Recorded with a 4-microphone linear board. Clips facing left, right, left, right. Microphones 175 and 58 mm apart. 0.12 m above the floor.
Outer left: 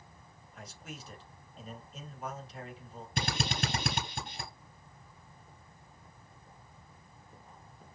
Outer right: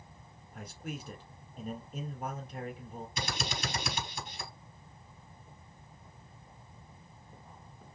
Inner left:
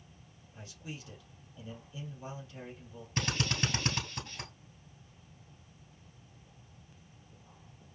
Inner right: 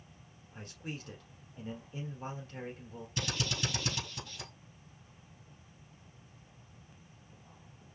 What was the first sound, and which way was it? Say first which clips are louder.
A man speaking: outer right 6 dB, inner right 3 dB; 55° right (ahead or behind).